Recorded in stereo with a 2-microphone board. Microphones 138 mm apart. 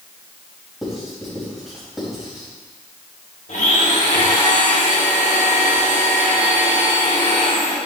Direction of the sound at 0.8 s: Centre (ahead or behind).